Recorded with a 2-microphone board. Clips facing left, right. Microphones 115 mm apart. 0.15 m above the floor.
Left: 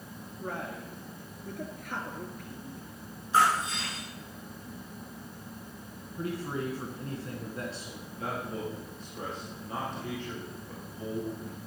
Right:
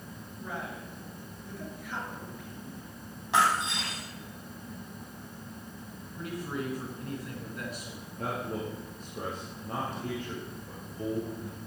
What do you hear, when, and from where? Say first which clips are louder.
0.4 s a man speaking: left 2 dB; 55° left (ahead or behind), 2.0 m
3.3 s breaking glass: left 1 dB; 75° right (ahead or behind), 4 m
6.2 s a man speaking: left 2 dB; 30° left (ahead or behind), 1.6 m
8.2 s a man speaking: right 1 dB; 45° right (ahead or behind), 3.5 m